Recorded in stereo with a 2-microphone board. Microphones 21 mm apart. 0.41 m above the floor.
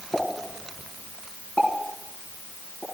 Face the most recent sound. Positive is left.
turn(degrees=70)  # may be behind; listen again after turning